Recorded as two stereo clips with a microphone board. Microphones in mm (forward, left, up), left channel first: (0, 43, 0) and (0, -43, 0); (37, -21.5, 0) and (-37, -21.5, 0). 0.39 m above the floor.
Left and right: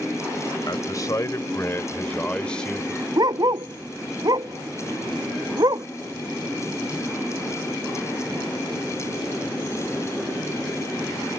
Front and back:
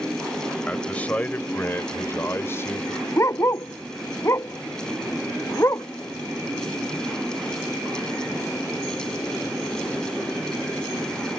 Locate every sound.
0.7 s a man speaking: 70° left; by 3.0 s straight ahead
3.2 s a dog barking: 50° right